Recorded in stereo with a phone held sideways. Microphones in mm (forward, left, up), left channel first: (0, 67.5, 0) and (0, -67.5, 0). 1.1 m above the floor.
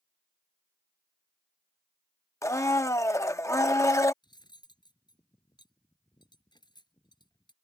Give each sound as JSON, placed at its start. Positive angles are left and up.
{"t": 2.4, "sound": "a blender", "side_deg": 20}
{"t": 4.2, "sound": "cutlery clinking", "side_deg": 35}